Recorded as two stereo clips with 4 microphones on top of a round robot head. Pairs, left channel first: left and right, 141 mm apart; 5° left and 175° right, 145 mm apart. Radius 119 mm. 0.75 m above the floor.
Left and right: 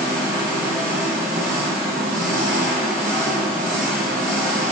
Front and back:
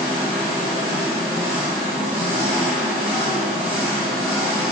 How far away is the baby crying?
I don't hear a baby crying.